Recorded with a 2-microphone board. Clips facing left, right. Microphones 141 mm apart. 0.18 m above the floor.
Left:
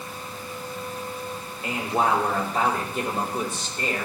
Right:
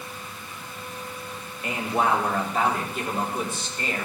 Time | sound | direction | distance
1.6 | a man speaking | 30° left (ahead or behind) | 5.5 m